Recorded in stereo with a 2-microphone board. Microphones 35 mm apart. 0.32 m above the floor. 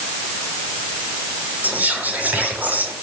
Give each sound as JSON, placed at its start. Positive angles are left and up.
{"t": 1.6, "sound": "whispering", "side_deg": -55, "distance_m": 6.0}